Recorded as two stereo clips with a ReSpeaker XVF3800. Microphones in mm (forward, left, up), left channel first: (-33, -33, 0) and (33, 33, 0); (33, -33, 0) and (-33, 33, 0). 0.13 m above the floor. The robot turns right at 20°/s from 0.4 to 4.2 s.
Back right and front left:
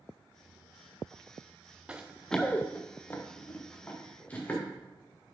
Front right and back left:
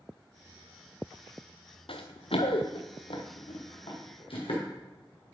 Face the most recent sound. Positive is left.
turn(degrees=-65)